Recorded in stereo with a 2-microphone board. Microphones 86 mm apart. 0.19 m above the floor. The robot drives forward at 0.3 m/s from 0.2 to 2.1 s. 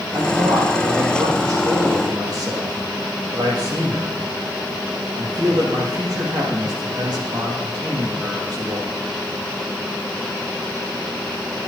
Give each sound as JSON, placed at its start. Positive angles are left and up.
{"t": 0.1, "sound": "a man speaking", "side_deg": -55, "distance_m": 6.0}